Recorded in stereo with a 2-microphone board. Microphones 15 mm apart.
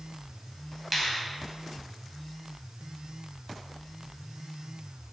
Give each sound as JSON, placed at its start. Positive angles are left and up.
{"t": 0.9, "sound": "a finger snap", "side_deg": -10, "distance_m": 2.0}